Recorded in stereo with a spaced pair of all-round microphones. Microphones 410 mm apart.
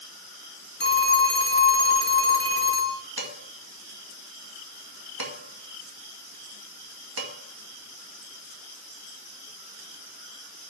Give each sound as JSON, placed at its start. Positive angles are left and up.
{"t": 0.8, "sound": "a phone ringing", "side_deg": 25, "distance_m": 1.0}
{"t": 3.2, "sound": "dishes clattering", "side_deg": -60, "distance_m": 2.0}